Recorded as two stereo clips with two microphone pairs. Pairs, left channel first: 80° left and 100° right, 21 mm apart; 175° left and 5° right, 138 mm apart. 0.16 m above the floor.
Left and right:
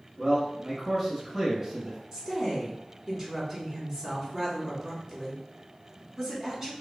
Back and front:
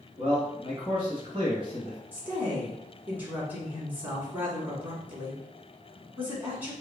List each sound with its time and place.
0.2 s a man speaking: 40° right, 1.5 m
2.1 s a woman speaking: 70° right, 1.2 m